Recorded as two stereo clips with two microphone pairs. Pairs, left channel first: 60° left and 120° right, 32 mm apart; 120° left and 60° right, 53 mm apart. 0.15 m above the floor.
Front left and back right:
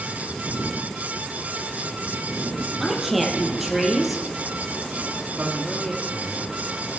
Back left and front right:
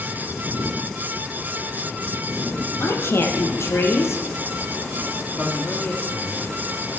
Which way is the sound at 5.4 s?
170° right.